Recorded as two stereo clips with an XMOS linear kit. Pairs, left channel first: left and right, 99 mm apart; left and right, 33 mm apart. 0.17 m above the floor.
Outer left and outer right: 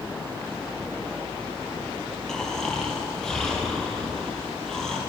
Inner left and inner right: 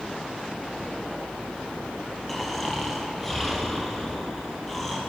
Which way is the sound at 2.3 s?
5° left (ahead or behind).